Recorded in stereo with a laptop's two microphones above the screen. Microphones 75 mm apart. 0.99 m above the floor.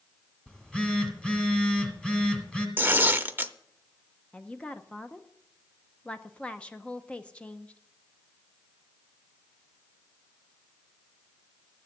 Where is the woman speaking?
15° left (ahead or behind), 0.6 m.